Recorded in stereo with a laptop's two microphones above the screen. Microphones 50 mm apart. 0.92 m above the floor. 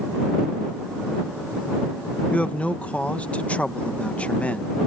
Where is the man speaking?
25° left (ahead or behind).